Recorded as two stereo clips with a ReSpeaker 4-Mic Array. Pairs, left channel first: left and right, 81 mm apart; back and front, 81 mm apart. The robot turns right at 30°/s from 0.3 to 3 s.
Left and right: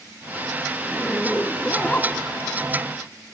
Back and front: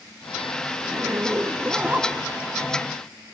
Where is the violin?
No violin in this recording.